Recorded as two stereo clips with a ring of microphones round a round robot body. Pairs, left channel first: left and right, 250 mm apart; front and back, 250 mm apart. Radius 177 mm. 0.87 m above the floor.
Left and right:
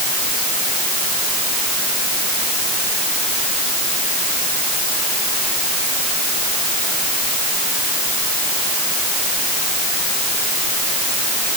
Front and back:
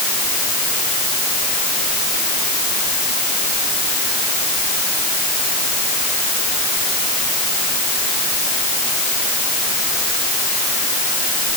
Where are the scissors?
I don't hear scissors.